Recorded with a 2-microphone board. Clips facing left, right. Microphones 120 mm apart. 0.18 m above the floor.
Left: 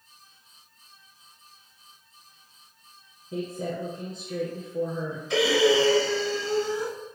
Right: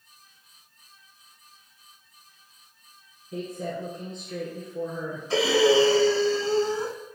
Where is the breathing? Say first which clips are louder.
Right 1 dB; 30° right (ahead or behind), 1.4 m.